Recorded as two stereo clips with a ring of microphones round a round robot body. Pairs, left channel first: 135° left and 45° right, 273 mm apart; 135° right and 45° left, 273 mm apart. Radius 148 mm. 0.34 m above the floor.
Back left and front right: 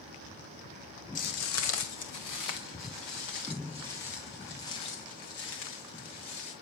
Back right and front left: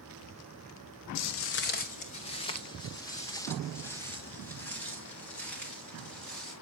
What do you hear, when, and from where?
1.1 s footsteps: 160° right, 0.8 m; by 6.5 s 140° left, 6 m